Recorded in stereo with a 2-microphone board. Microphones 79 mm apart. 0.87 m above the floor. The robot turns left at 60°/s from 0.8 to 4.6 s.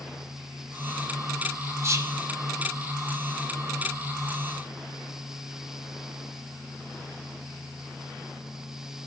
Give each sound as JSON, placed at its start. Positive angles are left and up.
{"t": 1.8, "sound": "whispering", "side_deg": -35, "distance_m": 1.7}